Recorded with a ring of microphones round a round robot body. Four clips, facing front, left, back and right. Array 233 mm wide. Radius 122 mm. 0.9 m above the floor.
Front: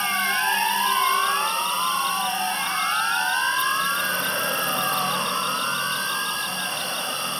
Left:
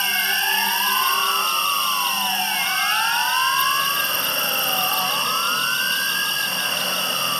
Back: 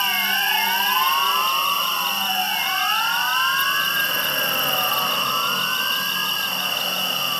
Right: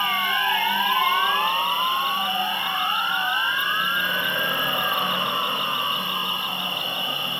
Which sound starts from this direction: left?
An insect, at 0.0 s.